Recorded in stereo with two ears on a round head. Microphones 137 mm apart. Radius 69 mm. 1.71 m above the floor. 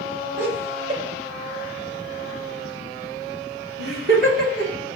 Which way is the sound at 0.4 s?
50° right (ahead or behind).